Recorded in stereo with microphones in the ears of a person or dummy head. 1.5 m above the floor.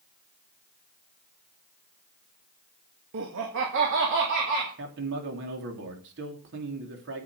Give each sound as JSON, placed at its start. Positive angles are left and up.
{"t": 3.1, "sound": "laughter", "side_deg": -70, "distance_m": 1.7}
{"t": 4.8, "sound": "a man speaking", "side_deg": -65, "distance_m": 3.0}